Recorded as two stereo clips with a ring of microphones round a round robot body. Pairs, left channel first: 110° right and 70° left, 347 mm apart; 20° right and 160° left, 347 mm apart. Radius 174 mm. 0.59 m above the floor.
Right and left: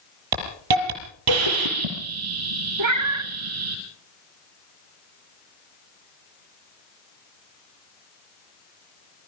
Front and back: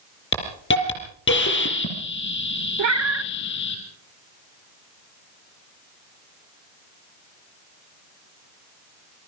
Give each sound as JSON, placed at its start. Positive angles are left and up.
{"t": 0.3, "sound": "a hiss", "azimuth_deg": 40, "distance_m": 5.5}
{"t": 2.8, "sound": "a cat meowing", "azimuth_deg": 110, "distance_m": 1.0}